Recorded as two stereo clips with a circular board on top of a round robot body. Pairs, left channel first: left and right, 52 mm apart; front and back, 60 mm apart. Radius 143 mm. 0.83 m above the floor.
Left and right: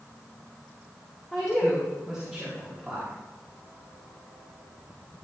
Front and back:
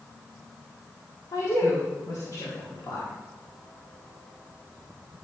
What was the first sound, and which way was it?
A woman speaking, 5° right.